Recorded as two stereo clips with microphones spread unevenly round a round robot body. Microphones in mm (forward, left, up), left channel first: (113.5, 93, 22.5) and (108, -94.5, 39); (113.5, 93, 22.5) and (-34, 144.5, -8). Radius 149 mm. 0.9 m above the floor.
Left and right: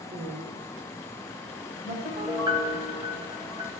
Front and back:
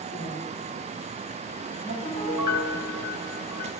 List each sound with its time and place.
0.1 s a woman speaking: 75° right, 4.5 m; by 1.9 s 80° right, 6 m
2.0 s a piano: 25° right, 3.5 m